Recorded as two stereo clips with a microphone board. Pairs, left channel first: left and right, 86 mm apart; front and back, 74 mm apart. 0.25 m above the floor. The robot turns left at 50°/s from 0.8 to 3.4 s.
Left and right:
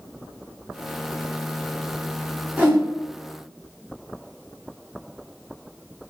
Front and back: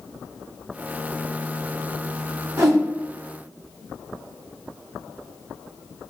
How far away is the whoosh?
About 1.7 m.